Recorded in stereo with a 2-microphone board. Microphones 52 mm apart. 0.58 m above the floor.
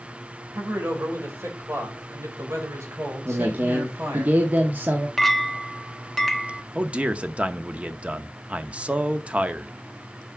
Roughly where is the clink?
Centre.